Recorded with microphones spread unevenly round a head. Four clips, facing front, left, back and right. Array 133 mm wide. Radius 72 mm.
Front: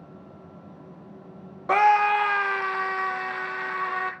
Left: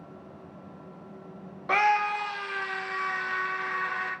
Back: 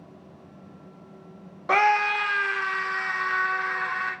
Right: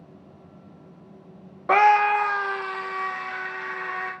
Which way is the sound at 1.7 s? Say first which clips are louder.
Right 7 dB, front 3 dB; 100° right.